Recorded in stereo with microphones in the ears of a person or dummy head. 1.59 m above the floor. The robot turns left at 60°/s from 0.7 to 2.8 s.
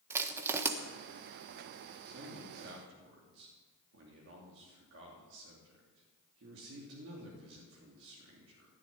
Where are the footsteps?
I don't hear footsteps.